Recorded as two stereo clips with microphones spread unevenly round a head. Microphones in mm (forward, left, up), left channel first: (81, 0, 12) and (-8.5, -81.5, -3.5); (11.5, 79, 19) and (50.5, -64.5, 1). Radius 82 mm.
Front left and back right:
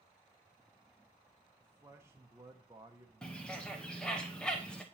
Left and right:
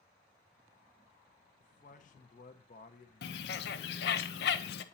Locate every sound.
1.6 s a man speaking: 145° left, 0.7 m
3.2 s a bird: 130° left, 0.5 m